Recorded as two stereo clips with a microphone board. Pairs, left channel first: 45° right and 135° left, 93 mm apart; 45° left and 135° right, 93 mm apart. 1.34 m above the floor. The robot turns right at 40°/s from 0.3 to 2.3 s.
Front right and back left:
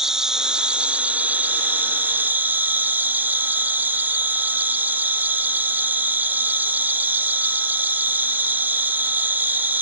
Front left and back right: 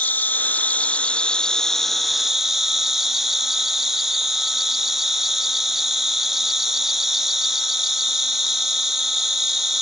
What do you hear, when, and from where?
0.0 s an insect: 65° left, 0.8 m; by 9.8 s 145° left, 0.8 m